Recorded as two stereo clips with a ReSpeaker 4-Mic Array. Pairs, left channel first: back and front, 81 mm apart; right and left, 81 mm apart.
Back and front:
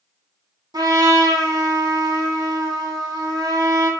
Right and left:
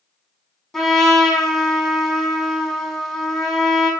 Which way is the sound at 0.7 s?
5° right.